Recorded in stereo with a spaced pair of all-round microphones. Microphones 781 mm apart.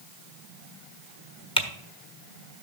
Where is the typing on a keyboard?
5° left (ahead or behind), 1.3 m.